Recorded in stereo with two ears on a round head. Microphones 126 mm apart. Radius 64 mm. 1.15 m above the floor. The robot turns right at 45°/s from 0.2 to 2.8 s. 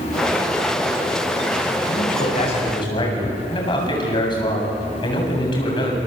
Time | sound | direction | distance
1.9 | a man speaking | 100° left | 8 m